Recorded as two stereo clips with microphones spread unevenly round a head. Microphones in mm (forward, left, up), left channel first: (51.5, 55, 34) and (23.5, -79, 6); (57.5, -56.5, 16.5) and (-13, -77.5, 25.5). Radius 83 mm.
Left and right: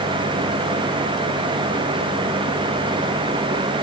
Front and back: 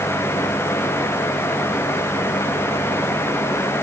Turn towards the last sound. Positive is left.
No sound to turn to.